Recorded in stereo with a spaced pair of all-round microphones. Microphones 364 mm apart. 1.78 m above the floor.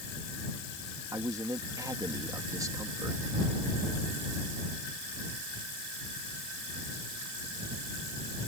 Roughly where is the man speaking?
Centre.